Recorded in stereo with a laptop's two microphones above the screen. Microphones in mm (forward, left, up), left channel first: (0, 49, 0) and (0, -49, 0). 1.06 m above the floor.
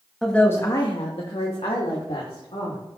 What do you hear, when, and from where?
0.2 s a woman speaking: centre (ahead or behind), 1.1 m; by 2.8 s 75° left (ahead or behind), 3 m